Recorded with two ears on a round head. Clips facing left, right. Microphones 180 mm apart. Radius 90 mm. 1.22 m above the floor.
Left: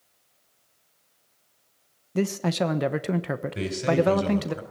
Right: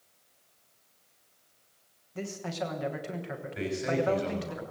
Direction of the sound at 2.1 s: 70° left (ahead or behind).